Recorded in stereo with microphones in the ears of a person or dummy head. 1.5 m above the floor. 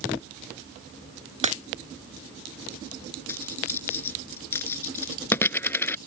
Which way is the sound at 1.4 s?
40° right (ahead or behind).